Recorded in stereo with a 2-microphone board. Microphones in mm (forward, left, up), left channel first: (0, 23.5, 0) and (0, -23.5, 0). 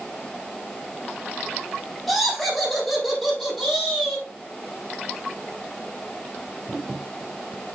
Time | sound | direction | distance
2.1 | laughter | 10° left (ahead or behind) | 4.5 m